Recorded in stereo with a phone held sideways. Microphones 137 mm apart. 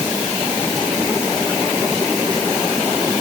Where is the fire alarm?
I don't hear a fire alarm.